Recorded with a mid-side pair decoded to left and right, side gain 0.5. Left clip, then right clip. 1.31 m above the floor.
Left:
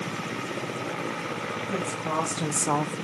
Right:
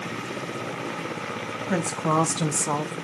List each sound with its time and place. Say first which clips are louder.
1.7 s a woman speaking: right 7 dB; 70° right, 1.2 m; by 3.0 s 40° left, 0.8 m